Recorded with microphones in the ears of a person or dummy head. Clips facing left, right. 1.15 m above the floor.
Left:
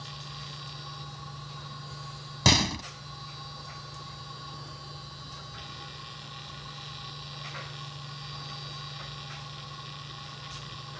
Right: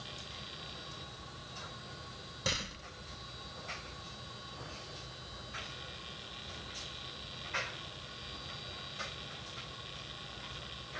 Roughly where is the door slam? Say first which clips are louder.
Left 14 dB; left.